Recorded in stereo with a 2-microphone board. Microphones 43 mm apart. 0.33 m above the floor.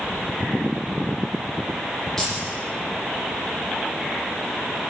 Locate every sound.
2.2 s keys jangling: 10° left (ahead or behind), 8 m